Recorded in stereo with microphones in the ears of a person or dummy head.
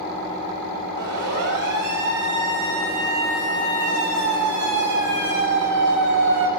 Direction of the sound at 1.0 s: 65° right (ahead or behind).